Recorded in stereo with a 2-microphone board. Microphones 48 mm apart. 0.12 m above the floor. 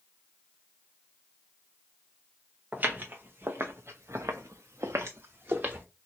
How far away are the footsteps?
About 1.5 m.